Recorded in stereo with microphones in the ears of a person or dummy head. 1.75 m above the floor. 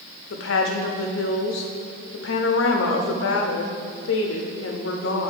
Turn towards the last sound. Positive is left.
turn(degrees=65)  # may be behind; listen again after turning